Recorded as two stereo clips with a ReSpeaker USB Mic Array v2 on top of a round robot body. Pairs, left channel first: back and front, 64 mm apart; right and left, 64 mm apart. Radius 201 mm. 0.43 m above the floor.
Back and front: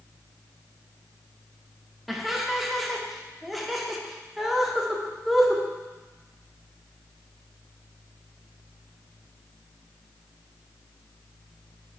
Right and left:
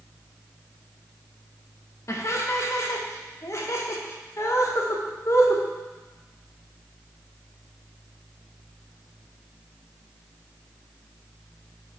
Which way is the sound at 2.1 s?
90° right.